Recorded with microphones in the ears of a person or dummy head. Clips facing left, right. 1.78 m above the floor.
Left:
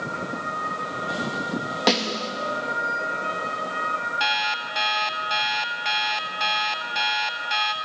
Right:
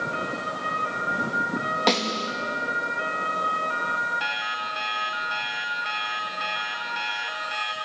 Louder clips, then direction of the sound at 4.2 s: Left 5 dB; 55° left (ahead or behind).